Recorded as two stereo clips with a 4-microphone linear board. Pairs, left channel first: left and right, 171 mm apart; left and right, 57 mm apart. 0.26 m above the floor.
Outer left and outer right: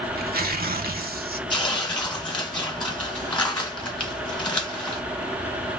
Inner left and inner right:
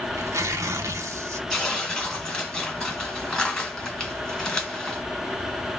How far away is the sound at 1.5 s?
About 1.7 m.